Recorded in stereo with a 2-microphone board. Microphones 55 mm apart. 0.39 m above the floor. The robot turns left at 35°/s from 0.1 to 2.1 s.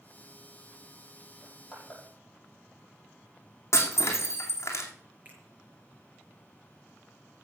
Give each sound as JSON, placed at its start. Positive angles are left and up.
{"t": 1.4, "sound": "crushing", "side_deg": -25, "distance_m": 6.0}
{"t": 3.7, "sound": "breaking glass", "side_deg": 55, "distance_m": 2.5}
{"t": 5.2, "sound": "a finger snap", "side_deg": -35, "distance_m": 5.0}